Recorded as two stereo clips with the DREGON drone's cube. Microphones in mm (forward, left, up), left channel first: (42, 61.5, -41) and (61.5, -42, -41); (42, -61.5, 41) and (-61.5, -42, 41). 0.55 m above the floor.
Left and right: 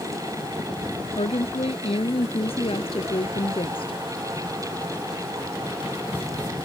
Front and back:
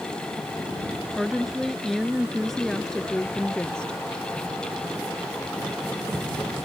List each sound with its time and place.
1.2 s a woman speaking: 80° left; by 4.0 s 70° left